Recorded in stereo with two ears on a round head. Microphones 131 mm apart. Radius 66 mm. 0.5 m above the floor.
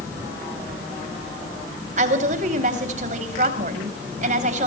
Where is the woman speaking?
55° right (ahead or behind), 3 m.